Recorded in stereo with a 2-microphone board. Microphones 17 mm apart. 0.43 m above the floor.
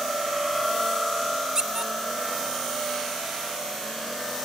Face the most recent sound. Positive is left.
turn(degrees=-40)  # may be behind; listen again after turning